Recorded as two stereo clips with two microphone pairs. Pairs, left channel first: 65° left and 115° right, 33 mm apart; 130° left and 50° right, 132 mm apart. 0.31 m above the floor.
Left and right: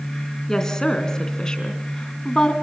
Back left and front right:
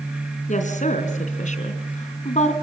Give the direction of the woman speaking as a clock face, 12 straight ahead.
7 o'clock.